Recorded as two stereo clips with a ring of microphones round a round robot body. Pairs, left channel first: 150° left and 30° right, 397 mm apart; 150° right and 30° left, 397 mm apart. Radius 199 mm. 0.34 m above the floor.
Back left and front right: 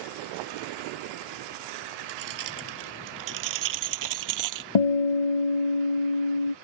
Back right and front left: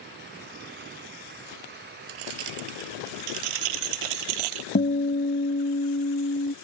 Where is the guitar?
140° left.